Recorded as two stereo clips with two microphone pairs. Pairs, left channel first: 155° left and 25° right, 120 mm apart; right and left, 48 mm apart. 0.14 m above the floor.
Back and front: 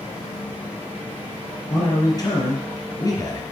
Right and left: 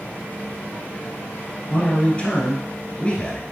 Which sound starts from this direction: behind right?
A man speaking, at 1.7 s.